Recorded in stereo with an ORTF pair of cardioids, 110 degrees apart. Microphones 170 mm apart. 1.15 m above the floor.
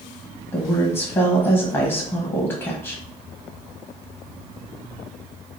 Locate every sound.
0.5 s a woman speaking: 20° left, 0.8 m